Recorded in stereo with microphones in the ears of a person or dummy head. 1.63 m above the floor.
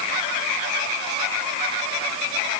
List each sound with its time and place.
Only background noise.